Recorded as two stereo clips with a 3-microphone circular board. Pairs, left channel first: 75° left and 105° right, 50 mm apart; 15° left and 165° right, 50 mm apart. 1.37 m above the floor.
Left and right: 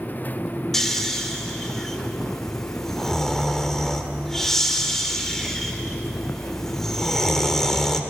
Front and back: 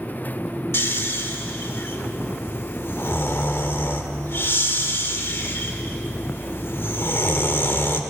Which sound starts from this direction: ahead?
Snoring, at 0.7 s.